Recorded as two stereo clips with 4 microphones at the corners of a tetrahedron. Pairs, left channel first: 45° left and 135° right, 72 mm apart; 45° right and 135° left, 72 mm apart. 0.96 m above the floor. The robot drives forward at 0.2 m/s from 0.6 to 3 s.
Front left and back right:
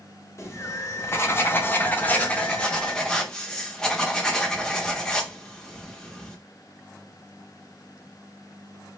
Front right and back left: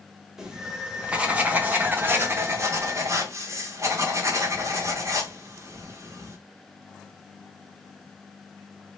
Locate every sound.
0.4 s writing: 60° left, 0.6 m; by 6.4 s 125° left, 0.7 m